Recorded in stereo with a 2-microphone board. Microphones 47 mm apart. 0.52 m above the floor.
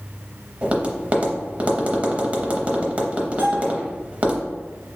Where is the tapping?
30° right (ahead or behind), 0.7 m.